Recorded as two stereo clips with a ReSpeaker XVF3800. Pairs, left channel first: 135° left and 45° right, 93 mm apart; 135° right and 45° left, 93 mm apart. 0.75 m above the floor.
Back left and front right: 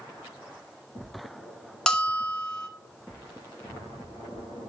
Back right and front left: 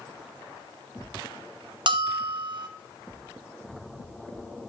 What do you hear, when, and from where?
1.9 s a bell: 55° left, 0.8 m